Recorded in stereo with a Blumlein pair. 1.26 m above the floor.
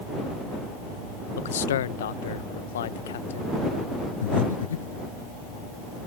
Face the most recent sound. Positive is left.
turn(degrees=65)